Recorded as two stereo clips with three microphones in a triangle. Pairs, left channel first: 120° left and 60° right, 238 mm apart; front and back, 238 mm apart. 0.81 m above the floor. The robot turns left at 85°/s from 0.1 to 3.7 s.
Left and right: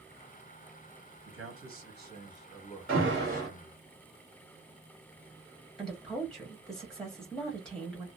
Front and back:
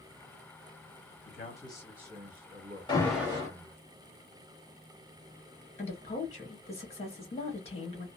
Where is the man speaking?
35° right, 1.5 m; by 3.8 s 115° left, 1.5 m.